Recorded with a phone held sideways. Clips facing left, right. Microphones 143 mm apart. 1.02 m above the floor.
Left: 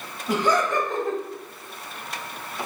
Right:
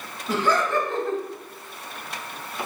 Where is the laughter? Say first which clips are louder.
Left 1 dB; 15° left (ahead or behind), 0.9 m.